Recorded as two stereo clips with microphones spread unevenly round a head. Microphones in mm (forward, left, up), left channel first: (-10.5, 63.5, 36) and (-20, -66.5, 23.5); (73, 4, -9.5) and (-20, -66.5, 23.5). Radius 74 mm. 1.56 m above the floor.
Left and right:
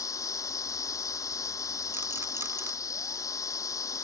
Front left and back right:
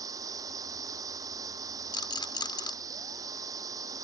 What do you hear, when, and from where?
0.0 s a machine running: 150° left
1.9 s a rattle: 20° right